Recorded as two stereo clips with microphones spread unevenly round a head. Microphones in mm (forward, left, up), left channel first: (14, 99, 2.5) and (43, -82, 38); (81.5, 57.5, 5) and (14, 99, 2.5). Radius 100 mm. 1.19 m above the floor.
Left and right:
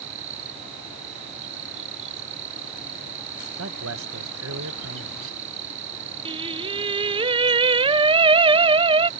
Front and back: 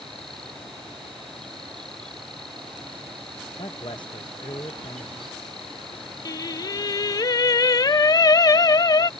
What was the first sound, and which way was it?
An insect, 120° right.